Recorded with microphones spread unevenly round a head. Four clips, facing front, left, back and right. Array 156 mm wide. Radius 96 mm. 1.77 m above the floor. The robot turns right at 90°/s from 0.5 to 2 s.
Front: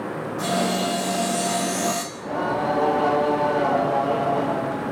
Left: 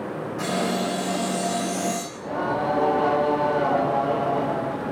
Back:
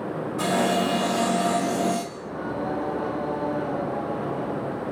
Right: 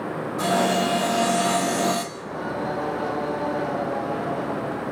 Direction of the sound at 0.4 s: 170° right.